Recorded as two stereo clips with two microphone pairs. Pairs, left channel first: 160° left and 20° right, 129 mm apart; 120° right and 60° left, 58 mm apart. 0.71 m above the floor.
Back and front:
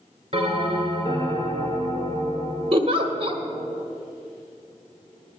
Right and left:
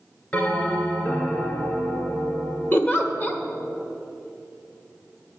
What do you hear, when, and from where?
0.3 s a bell: 55° right, 2 m
2.7 s a giggle: 65° right, 1.0 m